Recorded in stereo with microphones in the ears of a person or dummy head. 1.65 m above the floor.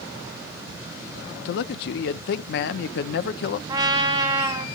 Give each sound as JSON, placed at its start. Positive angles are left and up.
{"t": 1.4, "sound": "a man speaking", "side_deg": 70, "distance_m": 0.7}
{"t": 3.7, "sound": "a trumpet", "side_deg": -25, "distance_m": 1.7}